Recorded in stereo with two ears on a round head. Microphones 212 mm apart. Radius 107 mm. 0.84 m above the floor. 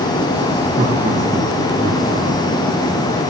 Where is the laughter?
30° right (ahead or behind), 1.1 m; by 3.3 s 20° right (ahead or behind), 2.5 m.